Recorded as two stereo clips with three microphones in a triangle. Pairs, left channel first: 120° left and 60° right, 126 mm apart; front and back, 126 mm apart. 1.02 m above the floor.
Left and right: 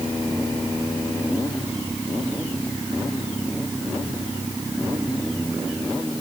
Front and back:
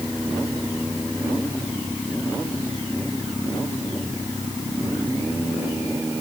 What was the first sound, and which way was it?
Only background noise.